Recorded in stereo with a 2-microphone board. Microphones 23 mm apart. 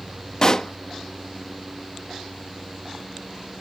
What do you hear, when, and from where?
0.4 s a pop: 30° left (ahead or behind)